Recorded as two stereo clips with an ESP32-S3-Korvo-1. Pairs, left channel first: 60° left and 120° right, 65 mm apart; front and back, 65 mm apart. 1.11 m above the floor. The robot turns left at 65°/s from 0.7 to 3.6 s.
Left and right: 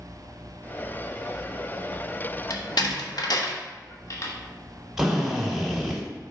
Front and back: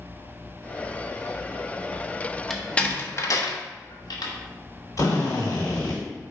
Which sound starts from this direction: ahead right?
A drill, at 5.0 s.